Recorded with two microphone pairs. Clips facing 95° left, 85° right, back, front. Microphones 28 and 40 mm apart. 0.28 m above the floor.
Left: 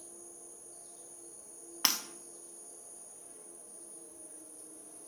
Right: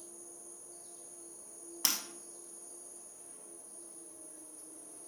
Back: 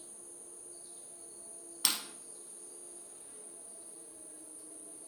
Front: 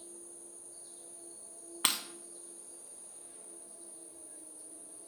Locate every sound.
0.0 s an insect: 175° right, 2.5 m
1.8 s breaking glass: 50° left, 0.6 m